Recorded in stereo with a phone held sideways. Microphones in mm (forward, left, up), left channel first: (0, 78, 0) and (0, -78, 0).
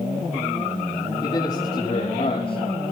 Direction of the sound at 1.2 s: 30° left (ahead or behind).